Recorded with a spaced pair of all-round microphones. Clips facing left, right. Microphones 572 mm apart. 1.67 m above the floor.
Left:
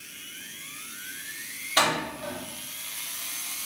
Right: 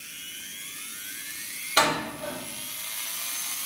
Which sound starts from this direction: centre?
A door slam, at 1.8 s.